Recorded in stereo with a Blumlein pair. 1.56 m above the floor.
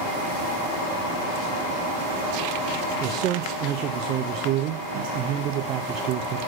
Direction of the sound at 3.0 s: 35° right.